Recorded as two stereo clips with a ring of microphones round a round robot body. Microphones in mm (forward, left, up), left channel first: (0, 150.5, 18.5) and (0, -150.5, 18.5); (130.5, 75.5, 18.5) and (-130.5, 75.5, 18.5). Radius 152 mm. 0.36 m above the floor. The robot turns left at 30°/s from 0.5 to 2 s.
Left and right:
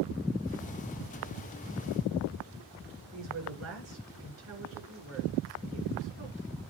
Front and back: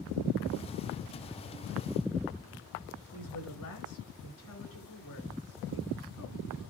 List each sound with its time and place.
3.1 s a woman speaking: 45° right, 5 m